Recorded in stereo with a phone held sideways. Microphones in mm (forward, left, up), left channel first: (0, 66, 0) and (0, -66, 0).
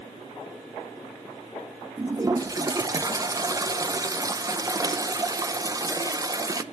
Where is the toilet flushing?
25° right (ahead or behind), 0.7 m.